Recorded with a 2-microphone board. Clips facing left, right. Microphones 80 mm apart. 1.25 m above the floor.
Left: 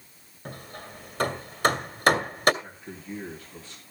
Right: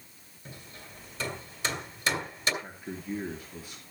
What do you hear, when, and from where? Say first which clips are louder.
0.5 s hammering: left 7 dB; 65° left (ahead or behind), 1.6 m
2.6 s a man speaking: right 2 dB; 10° right (ahead or behind), 3 m